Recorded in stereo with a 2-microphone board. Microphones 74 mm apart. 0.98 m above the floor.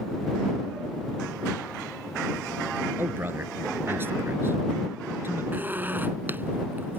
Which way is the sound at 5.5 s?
25° right (ahead or behind).